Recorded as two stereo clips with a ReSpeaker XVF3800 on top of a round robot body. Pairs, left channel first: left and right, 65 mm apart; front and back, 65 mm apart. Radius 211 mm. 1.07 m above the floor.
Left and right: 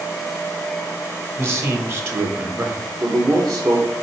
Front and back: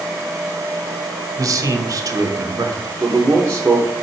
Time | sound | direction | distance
1.4 | a man speaking | 145° right | 1.5 m
3.0 | a man speaking | 120° right | 2 m